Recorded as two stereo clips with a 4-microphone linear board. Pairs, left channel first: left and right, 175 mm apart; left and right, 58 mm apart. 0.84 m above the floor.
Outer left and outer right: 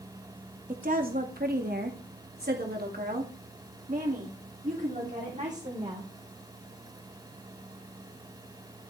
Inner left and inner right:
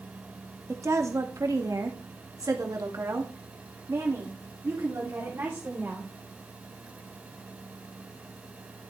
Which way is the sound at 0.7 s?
45° right (ahead or behind).